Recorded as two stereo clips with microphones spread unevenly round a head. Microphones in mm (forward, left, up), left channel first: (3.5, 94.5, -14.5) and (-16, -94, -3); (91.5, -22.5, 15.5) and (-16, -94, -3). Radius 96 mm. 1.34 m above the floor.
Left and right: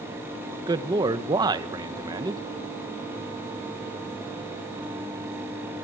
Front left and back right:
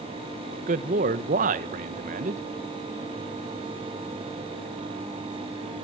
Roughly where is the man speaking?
Behind.